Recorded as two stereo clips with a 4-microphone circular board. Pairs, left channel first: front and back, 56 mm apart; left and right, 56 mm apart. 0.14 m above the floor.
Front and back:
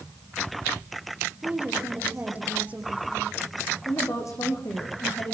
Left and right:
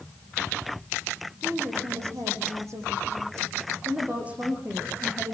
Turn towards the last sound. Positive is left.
turn(degrees=-25)